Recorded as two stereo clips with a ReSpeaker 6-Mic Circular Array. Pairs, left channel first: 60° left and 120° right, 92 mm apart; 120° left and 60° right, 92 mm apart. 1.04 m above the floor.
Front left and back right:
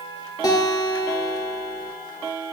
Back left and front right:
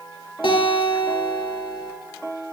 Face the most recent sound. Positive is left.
turn(degrees=100)